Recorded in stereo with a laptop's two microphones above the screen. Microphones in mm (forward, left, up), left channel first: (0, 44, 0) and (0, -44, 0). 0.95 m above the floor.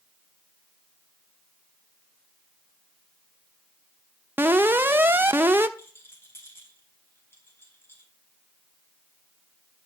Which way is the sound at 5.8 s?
25° left (ahead or behind).